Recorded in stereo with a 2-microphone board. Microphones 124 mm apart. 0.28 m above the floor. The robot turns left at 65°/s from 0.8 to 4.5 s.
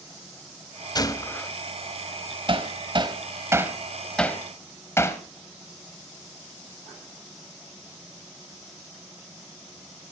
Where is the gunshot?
50° left, 0.9 m; by 1.5 s 15° left, 0.9 m.